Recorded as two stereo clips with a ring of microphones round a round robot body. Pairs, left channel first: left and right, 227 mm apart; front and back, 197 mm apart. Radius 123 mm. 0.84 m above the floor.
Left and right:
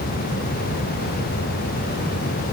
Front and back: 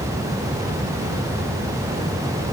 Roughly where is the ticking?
I don't hear ticking.